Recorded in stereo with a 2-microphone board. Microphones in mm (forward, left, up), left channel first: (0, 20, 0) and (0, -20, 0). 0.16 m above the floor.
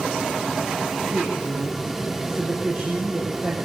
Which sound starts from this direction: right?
A woman speaking, at 1.1 s.